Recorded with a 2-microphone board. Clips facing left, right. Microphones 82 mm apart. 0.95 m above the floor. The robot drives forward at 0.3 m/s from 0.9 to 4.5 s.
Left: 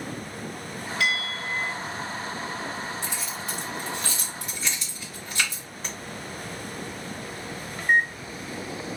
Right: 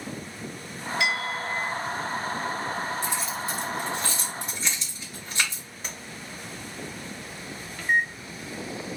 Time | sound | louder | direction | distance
1.0 | a bell | even | 20° right (ahead or behind) | 1.2 m
3.0 | keys jangling | right 4 dB | 45° right (ahead or behind) | 1.2 m
5.8 | tapping | left 2 dB | 10° right (ahead or behind) | 1.3 m
7.8 | a microwave | left 2 dB | 30° left (ahead or behind) | 0.6 m